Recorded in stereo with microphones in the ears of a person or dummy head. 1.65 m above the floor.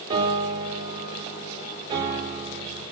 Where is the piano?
20° right (ahead or behind), 5 m.